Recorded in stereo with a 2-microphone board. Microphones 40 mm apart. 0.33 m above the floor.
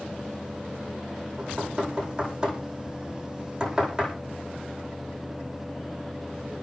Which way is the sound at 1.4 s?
20° right (ahead or behind).